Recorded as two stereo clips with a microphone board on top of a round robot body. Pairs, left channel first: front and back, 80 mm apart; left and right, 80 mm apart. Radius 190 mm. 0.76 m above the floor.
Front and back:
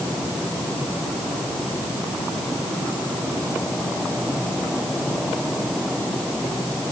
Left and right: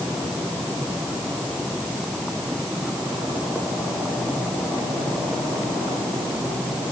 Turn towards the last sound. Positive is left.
No sound to turn to.